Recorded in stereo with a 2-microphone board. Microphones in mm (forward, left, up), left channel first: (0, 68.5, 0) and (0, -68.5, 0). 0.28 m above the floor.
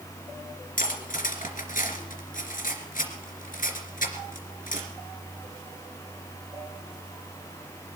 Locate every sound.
0.8 s cutlery clinking: 75° left (ahead or behind), 2.5 m